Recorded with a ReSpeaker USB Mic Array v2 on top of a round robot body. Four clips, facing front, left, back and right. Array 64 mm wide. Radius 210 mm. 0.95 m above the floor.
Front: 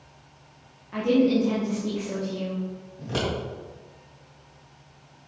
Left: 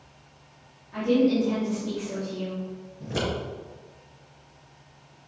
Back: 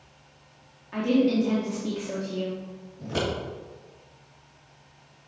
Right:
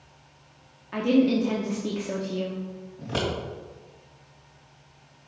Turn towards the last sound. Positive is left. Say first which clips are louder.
# right 1 dB, even
turn(degrees=-65)